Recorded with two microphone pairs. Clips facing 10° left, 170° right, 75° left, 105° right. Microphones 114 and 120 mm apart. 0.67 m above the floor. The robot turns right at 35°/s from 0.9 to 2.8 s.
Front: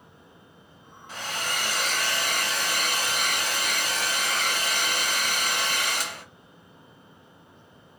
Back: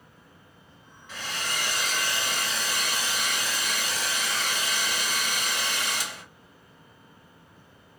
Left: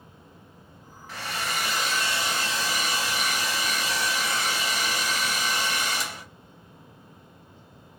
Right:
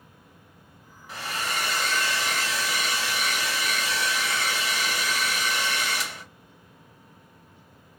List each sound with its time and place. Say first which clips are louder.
1.1 s a hair dryer: front 2 dB, even; 30° right, 1.5 m; by 6.2 s 30° left, 1.5 m